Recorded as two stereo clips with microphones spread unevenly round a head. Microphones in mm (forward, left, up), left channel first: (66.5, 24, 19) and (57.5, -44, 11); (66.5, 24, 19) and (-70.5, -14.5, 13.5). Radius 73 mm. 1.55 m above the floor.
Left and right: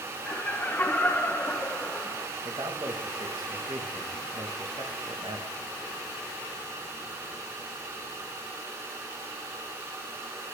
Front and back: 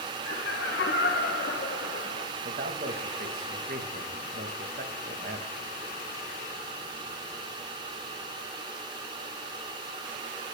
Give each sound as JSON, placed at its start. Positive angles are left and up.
{"t": 0.2, "sound": "laughter", "azimuth_deg": 25, "distance_m": 1.9}
{"t": 2.5, "sound": "a man speaking", "azimuth_deg": -130, "distance_m": 2.0}